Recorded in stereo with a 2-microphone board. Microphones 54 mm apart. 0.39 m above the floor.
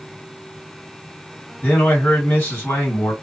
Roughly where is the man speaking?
Left.